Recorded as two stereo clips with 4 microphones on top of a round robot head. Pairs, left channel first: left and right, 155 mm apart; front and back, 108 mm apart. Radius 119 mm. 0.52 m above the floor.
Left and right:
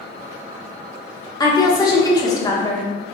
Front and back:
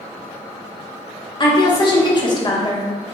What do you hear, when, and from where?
1.4 s a woman speaking: 30° left, 0.9 m